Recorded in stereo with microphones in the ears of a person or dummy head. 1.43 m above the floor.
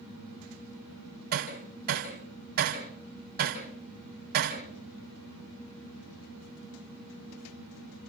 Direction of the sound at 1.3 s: 50° right (ahead or behind).